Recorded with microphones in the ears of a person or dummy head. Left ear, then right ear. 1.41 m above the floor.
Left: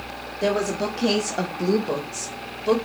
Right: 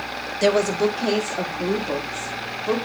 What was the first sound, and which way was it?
A woman speaking, 40° right (ahead or behind).